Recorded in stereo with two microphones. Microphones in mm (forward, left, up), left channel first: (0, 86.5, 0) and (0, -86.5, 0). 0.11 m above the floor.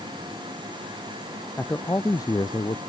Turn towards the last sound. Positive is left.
turn(degrees=25)  # may be behind; listen again after turning